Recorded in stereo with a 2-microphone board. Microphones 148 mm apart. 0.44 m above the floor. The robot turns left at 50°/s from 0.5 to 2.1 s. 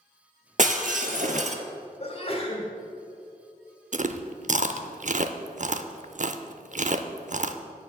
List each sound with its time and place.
0.6 s breaking glass: 70° right, 0.8 m; by 1.6 s 120° right, 0.8 m
2.0 s a sneeze: 45° left (ahead or behind), 2 m; by 2.7 s 40° left (ahead or behind), 2 m
3.9 s chewing: 60° right (ahead or behind), 0.5 m